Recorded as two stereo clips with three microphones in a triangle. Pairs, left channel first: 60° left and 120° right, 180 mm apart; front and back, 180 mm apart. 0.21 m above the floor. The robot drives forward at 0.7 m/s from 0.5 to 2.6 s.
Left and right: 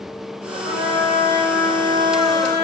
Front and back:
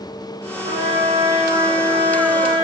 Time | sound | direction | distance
0.6 | a trumpet | 145° right | 5 m